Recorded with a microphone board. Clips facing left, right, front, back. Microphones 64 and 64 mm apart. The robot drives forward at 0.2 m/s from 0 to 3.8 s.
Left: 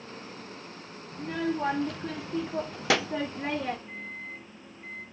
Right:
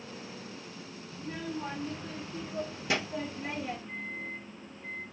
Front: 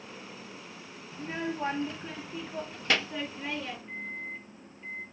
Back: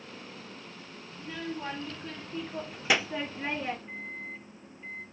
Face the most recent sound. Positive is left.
turn(degrees=85)